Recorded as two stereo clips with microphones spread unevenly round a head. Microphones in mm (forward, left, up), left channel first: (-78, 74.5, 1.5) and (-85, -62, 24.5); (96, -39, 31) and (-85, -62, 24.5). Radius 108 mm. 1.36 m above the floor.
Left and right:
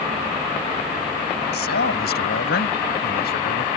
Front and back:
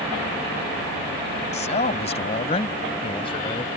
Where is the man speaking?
70° left; by 3.7 s 75° left.